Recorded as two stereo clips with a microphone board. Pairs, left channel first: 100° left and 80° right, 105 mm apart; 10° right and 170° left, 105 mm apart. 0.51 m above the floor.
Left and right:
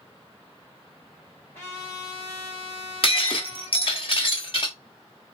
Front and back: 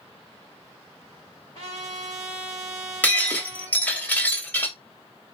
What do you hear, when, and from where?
1.5 s a trumpet: 165° left, 3 m
3.0 s breaking glass: 65° left, 1.1 m